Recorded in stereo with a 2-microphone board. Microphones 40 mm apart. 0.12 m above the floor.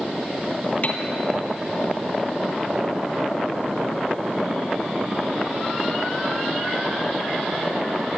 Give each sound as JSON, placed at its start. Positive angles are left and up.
{"t": 0.8, "sound": "a piano", "side_deg": 40, "distance_m": 2.0}